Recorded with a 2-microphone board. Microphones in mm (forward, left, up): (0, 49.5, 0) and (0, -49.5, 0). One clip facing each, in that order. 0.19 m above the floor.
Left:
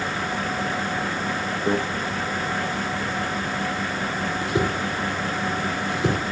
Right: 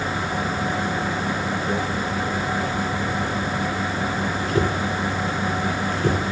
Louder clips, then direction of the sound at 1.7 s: Left 5 dB; 80° left.